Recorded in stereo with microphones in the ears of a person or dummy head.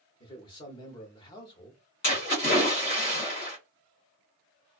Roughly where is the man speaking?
Left.